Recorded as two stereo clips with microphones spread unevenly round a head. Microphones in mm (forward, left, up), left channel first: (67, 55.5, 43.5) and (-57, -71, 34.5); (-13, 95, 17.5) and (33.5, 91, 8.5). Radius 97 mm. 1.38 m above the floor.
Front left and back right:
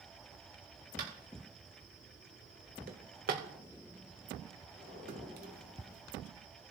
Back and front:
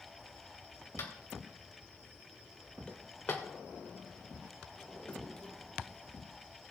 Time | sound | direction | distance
1.0 | tapping | 175° right | 3 m
2.9 | a drawer | 140° right | 1.2 m